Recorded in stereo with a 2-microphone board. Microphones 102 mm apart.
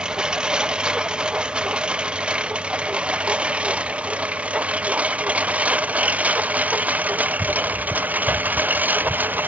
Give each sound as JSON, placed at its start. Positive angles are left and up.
{"t": 0.0, "sound": "a lawn mower", "side_deg": -10}